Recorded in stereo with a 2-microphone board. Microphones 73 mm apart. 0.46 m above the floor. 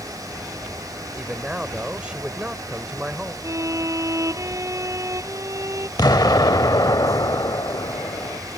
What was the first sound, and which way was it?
A man speaking, 15° right (ahead or behind).